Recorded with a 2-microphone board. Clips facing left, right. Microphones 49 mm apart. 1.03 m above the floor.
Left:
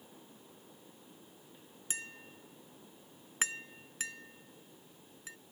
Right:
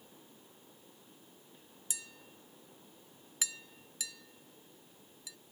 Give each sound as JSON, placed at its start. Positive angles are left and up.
{"t": 1.9, "sound": "tapping", "side_deg": 40}